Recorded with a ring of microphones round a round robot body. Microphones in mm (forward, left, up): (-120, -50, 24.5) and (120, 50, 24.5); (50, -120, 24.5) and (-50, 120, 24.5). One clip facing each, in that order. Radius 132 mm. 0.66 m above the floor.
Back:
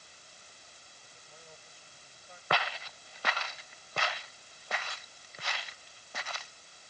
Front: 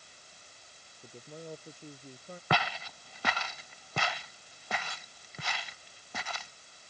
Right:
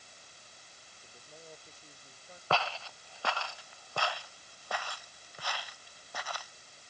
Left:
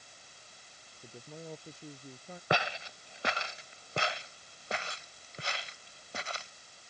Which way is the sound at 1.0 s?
75° left.